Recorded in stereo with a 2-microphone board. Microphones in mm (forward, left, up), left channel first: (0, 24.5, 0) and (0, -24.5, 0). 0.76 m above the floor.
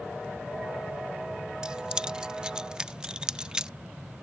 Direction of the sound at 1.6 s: 15° right (ahead or behind).